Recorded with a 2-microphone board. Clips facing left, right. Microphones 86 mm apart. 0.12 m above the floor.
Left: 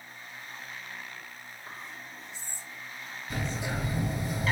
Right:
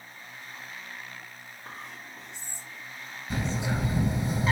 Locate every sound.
1.6 s whispering: 65° right (ahead or behind), 3 m
3.3 s a bird: 25° right (ahead or behind), 3 m